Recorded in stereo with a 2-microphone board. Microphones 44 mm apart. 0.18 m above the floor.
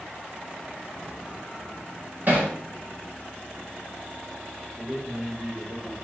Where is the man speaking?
80° right, 8 m.